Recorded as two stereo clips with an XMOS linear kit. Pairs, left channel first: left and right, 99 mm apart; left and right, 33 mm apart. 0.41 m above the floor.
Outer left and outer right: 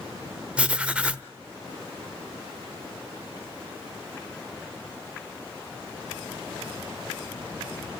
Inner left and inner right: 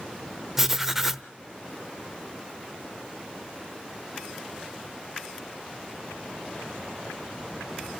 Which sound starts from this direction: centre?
Writing, at 0.6 s.